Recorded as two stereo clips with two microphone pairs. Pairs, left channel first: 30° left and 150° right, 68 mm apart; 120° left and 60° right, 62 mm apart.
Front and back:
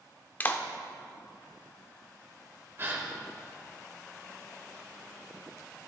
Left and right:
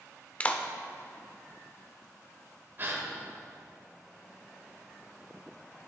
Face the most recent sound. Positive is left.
turn(degrees=-100)